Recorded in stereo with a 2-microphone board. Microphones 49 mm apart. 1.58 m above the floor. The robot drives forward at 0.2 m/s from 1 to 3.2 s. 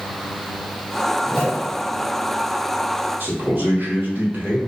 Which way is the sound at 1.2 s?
10° right (ahead or behind).